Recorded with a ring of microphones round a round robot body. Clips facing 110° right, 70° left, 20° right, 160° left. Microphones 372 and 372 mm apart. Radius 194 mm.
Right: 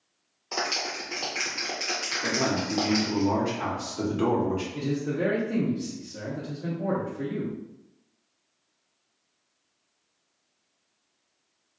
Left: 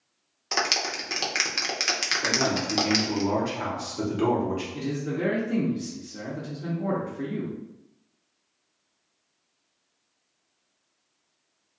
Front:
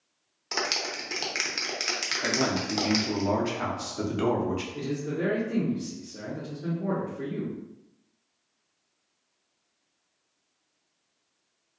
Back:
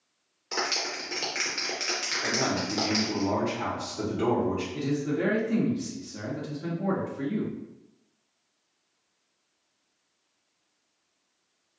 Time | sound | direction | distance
0.5 | a clap | 40° left | 0.7 m
2.2 | a man speaking | 15° right | 0.9 m
4.7 | a man speaking | 145° left | 0.9 m